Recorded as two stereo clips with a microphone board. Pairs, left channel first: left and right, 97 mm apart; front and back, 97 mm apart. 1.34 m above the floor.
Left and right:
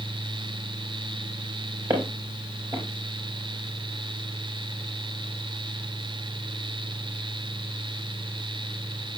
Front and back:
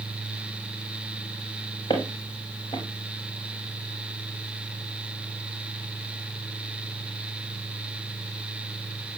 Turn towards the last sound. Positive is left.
turn(degrees=-45)